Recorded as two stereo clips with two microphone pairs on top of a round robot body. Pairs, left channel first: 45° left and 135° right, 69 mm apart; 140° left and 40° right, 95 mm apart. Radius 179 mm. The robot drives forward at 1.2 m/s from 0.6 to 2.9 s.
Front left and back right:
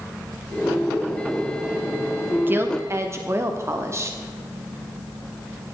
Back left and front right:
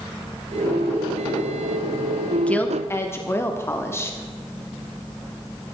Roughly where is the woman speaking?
Behind right.